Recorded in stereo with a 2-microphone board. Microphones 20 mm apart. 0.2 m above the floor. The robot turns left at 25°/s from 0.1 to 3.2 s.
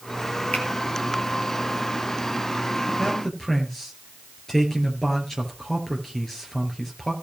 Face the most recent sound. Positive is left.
turn(degrees=20)  # may be behind; listen again after turning